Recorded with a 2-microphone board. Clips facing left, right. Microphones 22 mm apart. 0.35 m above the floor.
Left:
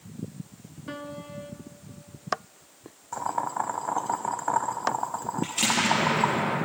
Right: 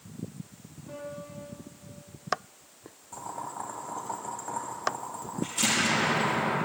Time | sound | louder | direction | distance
0.9 | a piano | left 3 dB | 85° left | 1.2 m
3.1 | boiling | left 9 dB | 50° left (ahead or behind) | 0.7 m
5.4 | an explosion | left 2 dB | 25° left (ahead or behind) | 6.5 m